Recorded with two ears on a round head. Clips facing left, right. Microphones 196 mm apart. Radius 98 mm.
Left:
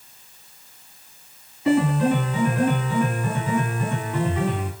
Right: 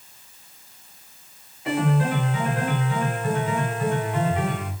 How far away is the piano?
About 3.5 m.